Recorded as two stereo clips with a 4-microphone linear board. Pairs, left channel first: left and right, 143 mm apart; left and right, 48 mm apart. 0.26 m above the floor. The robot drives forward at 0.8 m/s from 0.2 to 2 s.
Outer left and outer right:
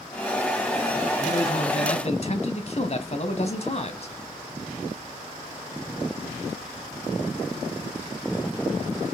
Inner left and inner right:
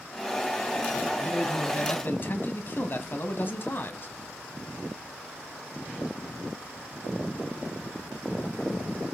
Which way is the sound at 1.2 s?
40° left (ahead or behind).